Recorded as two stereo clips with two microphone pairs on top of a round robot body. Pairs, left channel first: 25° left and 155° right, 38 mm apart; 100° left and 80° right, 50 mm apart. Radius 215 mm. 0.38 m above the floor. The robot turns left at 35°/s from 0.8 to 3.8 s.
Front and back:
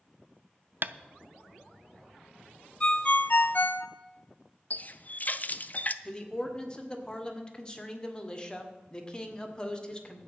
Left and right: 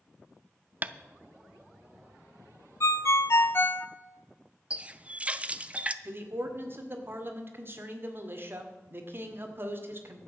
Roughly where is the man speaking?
Ahead right.